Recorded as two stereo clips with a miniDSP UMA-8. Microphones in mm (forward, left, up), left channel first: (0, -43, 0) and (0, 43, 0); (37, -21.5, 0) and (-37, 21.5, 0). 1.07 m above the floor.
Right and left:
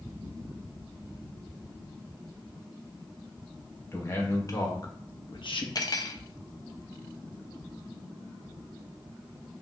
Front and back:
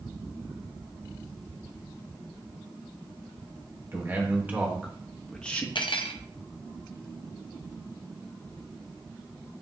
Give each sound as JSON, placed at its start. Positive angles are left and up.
{"t": 3.9, "sound": "a man speaking", "azimuth_deg": -150, "distance_m": 1.4}
{"t": 5.8, "sound": "cutlery clinking", "azimuth_deg": -50, "distance_m": 0.5}